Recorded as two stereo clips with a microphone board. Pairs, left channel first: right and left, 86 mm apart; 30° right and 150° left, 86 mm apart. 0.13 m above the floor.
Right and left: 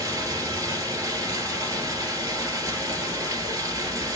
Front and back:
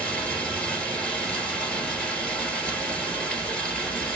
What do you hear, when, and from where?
0.0 s running water: 45° left, 2.0 m